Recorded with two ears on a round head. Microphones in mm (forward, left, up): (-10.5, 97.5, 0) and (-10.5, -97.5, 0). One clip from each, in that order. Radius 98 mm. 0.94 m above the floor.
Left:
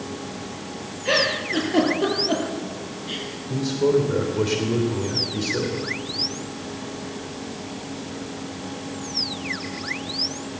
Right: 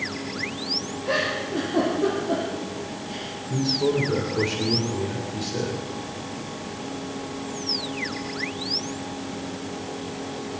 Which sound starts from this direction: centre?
A man speaking, at 3.5 s.